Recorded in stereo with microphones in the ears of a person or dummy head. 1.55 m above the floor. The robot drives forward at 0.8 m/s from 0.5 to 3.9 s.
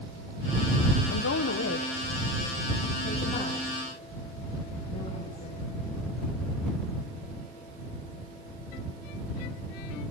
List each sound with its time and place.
1.1 s a woman speaking: 80° left, 1.2 m; by 5.6 s 25° left (ahead or behind), 2.5 m